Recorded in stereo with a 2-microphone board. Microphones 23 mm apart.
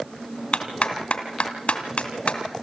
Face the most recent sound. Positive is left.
turn(degrees=65)  # may be behind; listen again after turning